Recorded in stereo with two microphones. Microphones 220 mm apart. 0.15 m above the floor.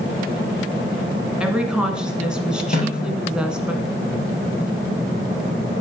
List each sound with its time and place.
1.4 s a woman speaking: 5° right (ahead or behind), 1.3 m
2.7 s a snare drum: 40° left (ahead or behind), 3 m